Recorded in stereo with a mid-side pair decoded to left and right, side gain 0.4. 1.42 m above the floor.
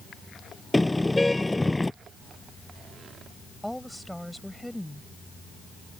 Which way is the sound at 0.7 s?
10° left.